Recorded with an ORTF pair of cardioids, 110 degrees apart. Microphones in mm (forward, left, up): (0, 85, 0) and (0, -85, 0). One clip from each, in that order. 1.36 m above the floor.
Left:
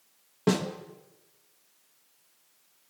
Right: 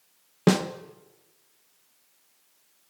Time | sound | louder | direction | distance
0.5 | a snare drum | right 4 dB | 40° right | 1.3 m